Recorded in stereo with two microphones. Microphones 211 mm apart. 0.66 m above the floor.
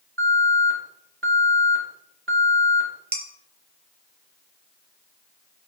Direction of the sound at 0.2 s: 70° right (ahead or behind).